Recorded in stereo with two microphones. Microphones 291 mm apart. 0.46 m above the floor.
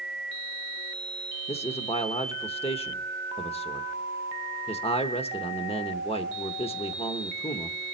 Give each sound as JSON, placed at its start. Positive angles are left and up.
{"t": 1.5, "sound": "a man speaking", "side_deg": 20, "distance_m": 0.8}